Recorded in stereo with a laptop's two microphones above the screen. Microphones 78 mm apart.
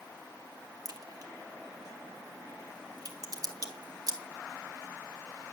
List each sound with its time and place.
0.8 s a crack: 50° right (ahead or behind), 2.5 m